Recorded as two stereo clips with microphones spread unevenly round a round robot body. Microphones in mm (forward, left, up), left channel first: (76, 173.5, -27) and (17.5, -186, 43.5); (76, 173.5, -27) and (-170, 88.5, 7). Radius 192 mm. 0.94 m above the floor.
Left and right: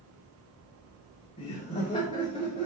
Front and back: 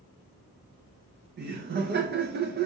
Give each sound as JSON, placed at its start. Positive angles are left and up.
{"t": 1.4, "sound": "laughter", "azimuth_deg": 145, "distance_m": 0.5}